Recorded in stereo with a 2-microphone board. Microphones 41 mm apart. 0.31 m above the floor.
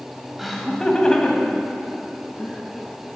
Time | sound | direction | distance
0.4 | laughter | 5° right (ahead or behind) | 1.3 m